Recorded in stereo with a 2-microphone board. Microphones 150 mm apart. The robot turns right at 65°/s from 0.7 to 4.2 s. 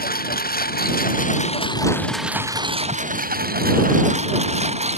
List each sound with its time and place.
0.0 s a lawn mower: 80° left; by 5.0 s 45° right (ahead or behind)